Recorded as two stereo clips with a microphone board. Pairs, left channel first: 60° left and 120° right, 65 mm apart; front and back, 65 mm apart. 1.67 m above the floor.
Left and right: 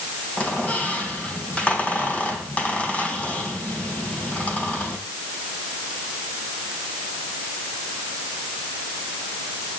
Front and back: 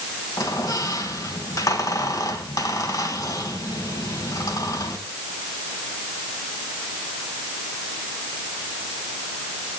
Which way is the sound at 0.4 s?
10° right.